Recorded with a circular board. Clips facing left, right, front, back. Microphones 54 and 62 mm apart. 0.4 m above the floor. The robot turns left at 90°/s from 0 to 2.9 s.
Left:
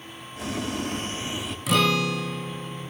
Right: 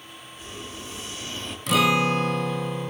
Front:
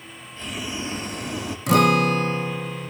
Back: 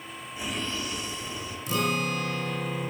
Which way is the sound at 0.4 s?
105° left.